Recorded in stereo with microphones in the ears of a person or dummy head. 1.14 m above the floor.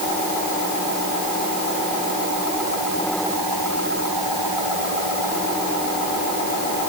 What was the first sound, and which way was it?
Only background noise.